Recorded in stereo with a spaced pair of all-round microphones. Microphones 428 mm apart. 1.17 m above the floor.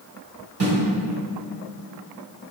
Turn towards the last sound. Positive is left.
turn(degrees=-60)  # may be behind; listen again after turning